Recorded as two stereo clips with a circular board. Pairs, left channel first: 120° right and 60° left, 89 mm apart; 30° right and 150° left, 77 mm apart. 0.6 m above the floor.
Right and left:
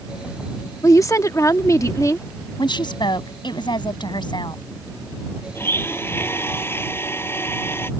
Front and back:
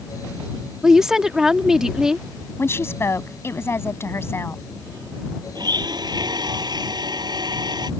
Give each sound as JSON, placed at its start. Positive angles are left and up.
{"t": 0.8, "sound": "a woman speaking", "azimuth_deg": -130}
{"t": 2.6, "sound": "a woman speaking", "azimuth_deg": -90}
{"t": 5.5, "sound": "a blender", "azimuth_deg": 175}